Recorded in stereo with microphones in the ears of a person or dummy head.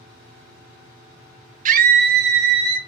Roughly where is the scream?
Right.